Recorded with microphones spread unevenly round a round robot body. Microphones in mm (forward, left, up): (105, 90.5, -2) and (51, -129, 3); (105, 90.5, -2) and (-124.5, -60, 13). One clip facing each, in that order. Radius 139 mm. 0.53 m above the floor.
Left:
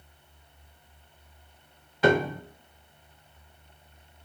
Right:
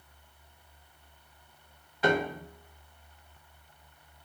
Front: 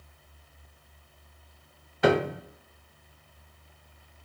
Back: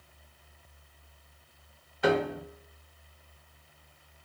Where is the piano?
60° left, 0.6 m.